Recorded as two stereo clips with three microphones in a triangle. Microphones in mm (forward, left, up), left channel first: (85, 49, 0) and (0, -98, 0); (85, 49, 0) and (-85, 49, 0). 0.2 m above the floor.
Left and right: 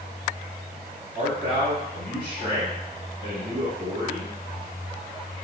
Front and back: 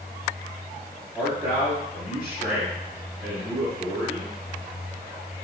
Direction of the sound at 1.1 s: 105° right.